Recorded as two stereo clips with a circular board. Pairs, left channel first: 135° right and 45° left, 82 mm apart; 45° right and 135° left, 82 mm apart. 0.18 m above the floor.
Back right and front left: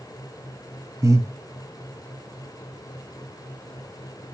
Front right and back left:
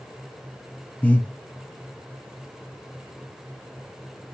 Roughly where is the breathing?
Ahead.